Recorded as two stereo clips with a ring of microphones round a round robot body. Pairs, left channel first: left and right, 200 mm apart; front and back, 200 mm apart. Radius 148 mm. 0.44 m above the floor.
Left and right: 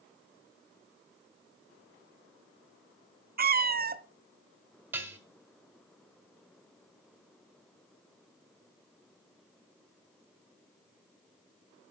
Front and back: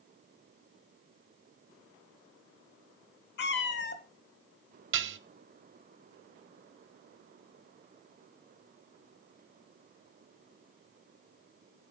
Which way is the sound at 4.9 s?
170° right.